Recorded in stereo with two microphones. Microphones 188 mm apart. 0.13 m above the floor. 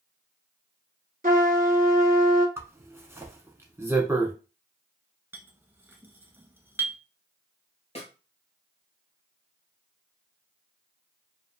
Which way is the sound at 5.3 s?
10° right (ahead or behind).